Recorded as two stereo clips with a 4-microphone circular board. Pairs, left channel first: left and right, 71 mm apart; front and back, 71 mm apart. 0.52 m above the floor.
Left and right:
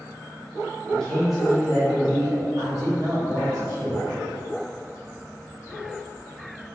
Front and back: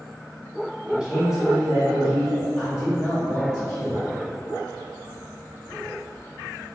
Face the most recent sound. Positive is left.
turn(degrees=-80)